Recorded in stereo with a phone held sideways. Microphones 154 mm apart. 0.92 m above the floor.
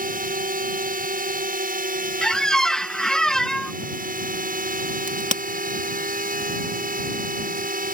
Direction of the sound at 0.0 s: 65° right (ahead or behind).